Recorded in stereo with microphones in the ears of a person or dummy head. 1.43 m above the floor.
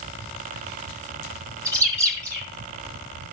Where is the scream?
No scream in this recording.